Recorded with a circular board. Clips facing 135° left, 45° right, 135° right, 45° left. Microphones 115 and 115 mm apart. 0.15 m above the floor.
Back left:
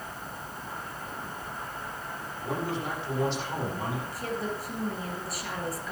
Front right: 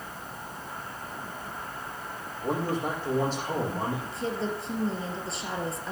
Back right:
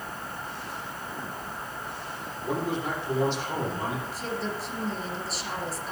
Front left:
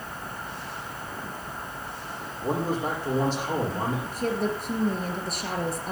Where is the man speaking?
Straight ahead, 7.5 m.